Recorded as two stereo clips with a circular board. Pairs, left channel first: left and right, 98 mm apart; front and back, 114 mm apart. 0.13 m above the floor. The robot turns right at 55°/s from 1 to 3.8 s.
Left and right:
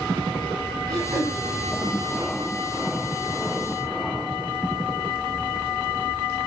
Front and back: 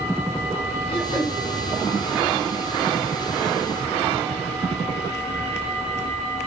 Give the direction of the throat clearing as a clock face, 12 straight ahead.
1 o'clock.